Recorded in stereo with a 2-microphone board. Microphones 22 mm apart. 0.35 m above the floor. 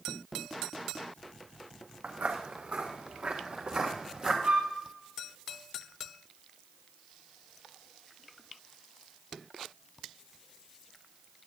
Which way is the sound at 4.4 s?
75° right (ahead or behind).